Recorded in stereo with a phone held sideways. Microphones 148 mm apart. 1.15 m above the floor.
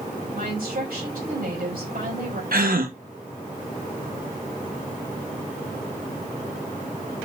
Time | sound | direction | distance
0.3 | a woman speaking | 90° right | 5.5 m
2.5 | a gasp | 80° right | 1.7 m